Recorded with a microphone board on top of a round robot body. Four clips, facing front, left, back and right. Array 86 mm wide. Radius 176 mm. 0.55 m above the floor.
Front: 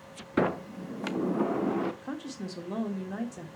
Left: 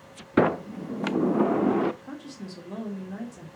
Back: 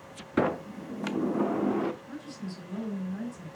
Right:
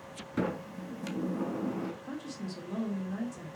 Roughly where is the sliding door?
Left.